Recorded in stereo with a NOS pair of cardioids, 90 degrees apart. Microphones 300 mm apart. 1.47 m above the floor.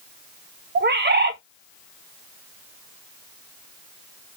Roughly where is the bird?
Ahead right.